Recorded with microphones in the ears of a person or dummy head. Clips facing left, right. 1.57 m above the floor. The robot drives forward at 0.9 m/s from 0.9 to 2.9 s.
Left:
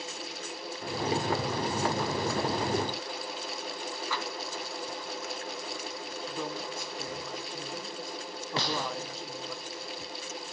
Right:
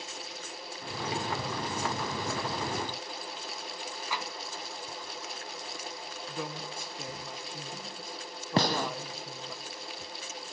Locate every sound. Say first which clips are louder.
4.1 s tapping: even; 10° right (ahead or behind), 1.4 m
6.3 s a woman speaking: left 1 dB; 5° right (ahead or behind), 1.5 m
8.6 s a gunshot: right 5 dB; 45° right (ahead or behind), 0.8 m